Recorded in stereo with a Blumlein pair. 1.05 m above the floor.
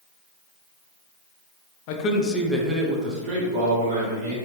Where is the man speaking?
45° left, 0.6 m; by 4.4 s 50° right, 1.5 m.